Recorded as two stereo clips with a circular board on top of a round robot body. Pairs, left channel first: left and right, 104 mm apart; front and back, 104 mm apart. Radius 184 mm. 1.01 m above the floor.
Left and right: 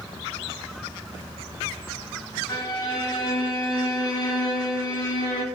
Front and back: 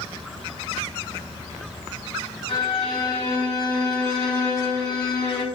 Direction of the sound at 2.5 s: 45° left.